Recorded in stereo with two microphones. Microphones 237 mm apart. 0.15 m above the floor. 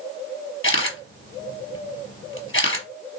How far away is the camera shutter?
About 1.1 m.